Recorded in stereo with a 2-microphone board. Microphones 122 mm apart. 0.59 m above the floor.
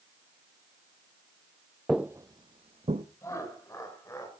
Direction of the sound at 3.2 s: 25° left (ahead or behind).